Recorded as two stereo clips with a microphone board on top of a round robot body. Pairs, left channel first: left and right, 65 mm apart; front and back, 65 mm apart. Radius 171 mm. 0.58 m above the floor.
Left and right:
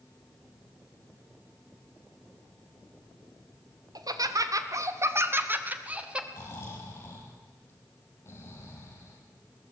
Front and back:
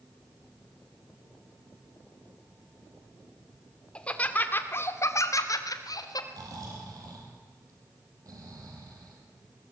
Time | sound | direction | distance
4.0 | laughter | 75° right | 2.5 m
6.3 | snoring | 145° left | 4 m